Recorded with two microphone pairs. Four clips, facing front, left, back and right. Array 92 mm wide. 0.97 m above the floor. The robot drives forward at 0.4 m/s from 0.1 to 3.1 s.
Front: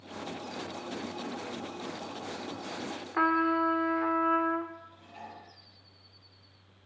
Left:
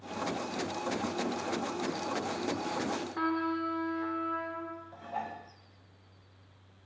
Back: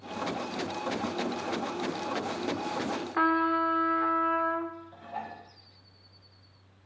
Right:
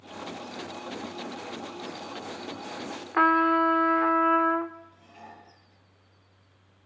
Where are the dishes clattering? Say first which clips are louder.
Left 10 dB, back 7 dB; 125° left, 3.5 m.